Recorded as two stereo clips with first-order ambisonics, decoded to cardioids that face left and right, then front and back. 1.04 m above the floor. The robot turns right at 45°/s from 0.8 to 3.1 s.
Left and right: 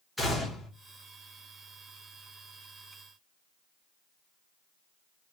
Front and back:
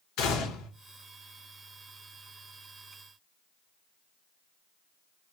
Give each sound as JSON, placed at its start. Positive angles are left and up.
{"t": 0.2, "sound": "a gunshot", "azimuth_deg": 5, "distance_m": 1.1}